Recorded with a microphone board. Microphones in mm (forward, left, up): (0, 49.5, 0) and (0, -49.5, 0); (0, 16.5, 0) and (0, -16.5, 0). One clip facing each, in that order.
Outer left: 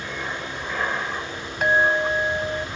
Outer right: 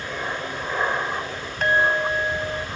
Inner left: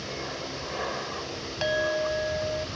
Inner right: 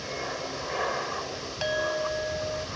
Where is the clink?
5° left (ahead or behind).